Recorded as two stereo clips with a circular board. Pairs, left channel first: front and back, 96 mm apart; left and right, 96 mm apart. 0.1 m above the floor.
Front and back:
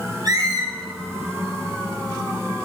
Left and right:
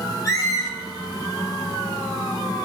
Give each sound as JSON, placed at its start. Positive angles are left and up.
{"t": 0.2, "sound": "a squeak", "azimuth_deg": 140, "distance_m": 1.6}